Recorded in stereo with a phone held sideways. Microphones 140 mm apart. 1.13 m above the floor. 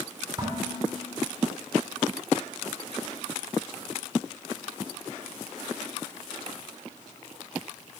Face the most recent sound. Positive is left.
turn(degrees=-30)  # may be behind; listen again after turning